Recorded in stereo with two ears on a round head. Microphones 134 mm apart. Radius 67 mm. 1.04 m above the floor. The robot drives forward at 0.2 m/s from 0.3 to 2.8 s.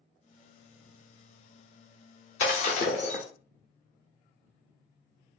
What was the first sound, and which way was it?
Breaking glass, 50° left (ahead or behind).